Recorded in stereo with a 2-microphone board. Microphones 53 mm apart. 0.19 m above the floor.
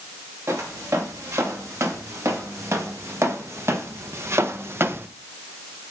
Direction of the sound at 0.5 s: 65° right (ahead or behind).